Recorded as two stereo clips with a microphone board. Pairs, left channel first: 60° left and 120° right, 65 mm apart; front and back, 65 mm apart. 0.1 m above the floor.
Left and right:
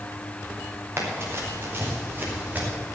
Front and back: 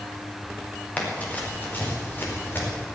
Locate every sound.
1.0 s running footsteps: 70° right, 4.5 m; by 2.7 s 55° right, 5.5 m